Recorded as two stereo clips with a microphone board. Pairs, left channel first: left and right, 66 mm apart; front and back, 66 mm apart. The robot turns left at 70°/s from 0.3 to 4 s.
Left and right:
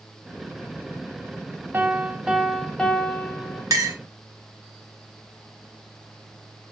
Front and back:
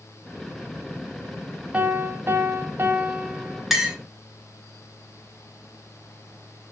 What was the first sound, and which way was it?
A piano, 120° right.